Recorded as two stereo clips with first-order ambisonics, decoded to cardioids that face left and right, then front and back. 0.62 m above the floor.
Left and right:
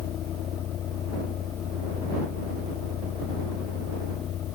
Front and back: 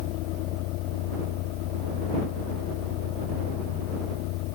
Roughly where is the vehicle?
Ahead left.